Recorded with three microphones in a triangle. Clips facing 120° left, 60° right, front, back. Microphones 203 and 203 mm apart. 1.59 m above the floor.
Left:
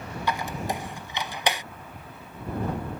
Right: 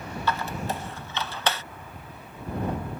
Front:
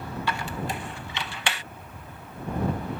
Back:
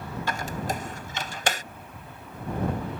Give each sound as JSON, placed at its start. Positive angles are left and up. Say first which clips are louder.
{"t": 0.3, "sound": "a squeak", "louder": "even, back 1 dB", "azimuth_deg": -170}